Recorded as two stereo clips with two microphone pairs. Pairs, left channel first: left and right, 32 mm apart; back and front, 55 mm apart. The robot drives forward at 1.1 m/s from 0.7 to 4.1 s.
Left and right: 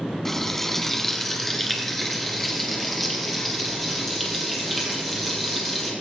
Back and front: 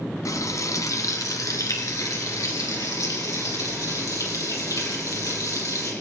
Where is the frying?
170° left, 1.5 m; by 5.9 s 175° left, 5 m.